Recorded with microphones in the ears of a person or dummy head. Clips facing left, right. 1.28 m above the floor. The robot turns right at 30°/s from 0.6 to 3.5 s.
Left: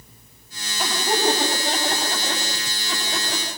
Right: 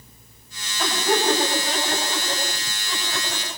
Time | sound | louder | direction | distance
0.8 | laughter | right 1 dB | 5° left (ahead or behind) | 9 m